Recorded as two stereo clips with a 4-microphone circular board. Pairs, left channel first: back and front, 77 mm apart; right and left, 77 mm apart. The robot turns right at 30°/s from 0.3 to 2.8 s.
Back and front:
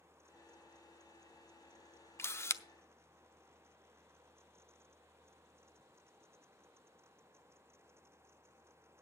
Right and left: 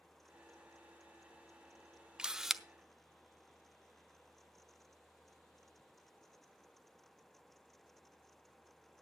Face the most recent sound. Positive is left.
turn(degrees=180)